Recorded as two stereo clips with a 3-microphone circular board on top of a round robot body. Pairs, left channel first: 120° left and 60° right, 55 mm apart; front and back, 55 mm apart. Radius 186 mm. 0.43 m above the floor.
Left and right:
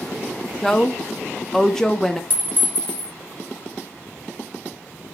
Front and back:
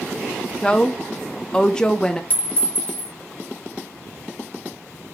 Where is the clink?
60° left, 1.5 m.